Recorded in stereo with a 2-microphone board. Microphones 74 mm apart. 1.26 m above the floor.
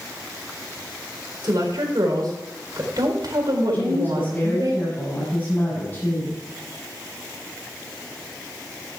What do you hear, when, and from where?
1.4 s a woman speaking: 60° right (ahead or behind), 4 m
3.7 s a woman speaking: 20° left (ahead or behind), 9 m